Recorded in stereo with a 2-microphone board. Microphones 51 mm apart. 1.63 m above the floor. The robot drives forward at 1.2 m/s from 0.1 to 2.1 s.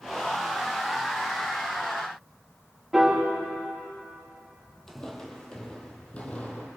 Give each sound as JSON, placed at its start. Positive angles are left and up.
{"t": 2.9, "sound": "a piano", "side_deg": -5, "distance_m": 3.0}
{"t": 4.9, "sound": "footsteps", "side_deg": 10, "distance_m": 1.9}